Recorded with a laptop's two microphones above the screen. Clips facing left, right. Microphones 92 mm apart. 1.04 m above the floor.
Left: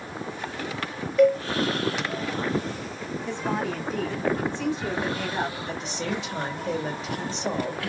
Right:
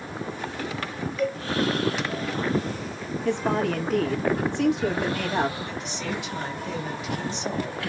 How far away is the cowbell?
About 1.9 m.